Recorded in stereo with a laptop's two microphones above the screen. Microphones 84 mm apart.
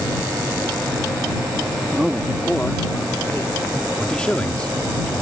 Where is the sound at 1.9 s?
15° right (ahead or behind); by 3.9 s 35° left (ahead or behind).